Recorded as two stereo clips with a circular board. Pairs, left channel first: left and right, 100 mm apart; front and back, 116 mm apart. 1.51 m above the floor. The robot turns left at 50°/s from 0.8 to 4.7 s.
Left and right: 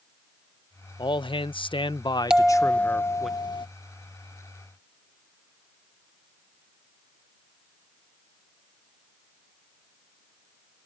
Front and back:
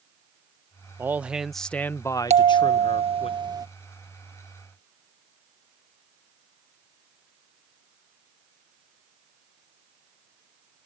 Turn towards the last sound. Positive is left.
turn(degrees=70)